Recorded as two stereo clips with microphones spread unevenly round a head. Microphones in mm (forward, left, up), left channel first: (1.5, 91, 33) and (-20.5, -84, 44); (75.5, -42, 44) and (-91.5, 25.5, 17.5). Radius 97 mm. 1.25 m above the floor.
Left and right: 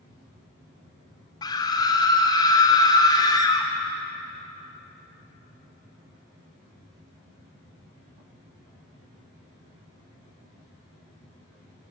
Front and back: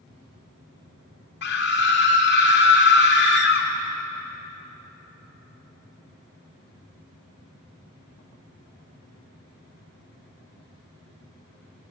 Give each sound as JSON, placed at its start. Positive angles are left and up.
{"t": 1.4, "sound": "a scream", "azimuth_deg": 15, "distance_m": 3.0}